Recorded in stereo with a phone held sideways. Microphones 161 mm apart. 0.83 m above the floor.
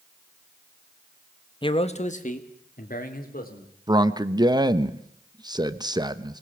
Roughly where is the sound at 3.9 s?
Right.